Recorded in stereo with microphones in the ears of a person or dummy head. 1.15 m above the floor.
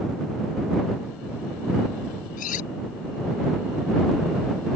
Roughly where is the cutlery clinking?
Left.